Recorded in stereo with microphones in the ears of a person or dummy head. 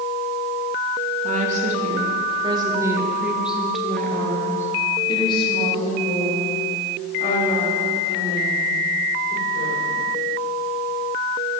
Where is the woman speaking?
45° right (ahead or behind), 3 m; by 10.0 s 55° left (ahead or behind), 7 m.